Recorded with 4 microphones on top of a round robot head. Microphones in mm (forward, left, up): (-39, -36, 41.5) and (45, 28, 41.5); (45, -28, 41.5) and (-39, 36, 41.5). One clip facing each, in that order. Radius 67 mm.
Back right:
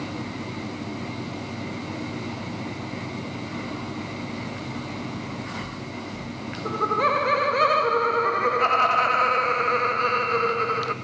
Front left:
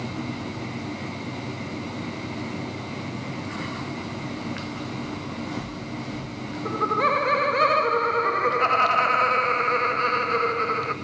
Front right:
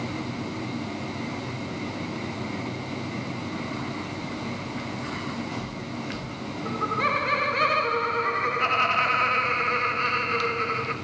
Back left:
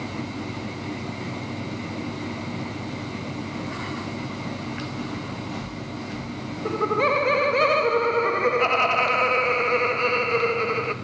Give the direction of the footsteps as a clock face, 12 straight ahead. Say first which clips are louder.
Front left 1 dB, even; 10 o'clock.